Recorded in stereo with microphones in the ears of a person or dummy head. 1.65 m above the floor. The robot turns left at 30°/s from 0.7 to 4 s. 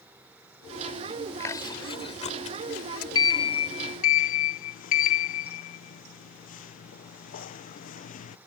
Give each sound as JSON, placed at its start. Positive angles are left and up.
{"t": 1.4, "sound": "chewing", "side_deg": 20}
{"t": 3.1, "sound": "a sliding door", "side_deg": 25}